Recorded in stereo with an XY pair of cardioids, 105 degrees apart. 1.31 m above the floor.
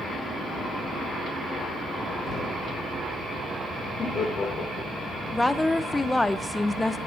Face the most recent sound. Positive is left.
turn(degrees=10)